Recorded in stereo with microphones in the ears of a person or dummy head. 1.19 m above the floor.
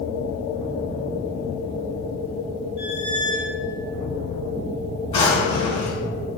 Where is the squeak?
35° left (ahead or behind), 1.1 m.